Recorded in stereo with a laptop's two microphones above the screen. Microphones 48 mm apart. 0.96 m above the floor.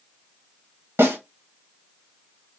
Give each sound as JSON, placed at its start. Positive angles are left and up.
{"t": 1.0, "sound": "a snare drum", "side_deg": -50, "distance_m": 1.3}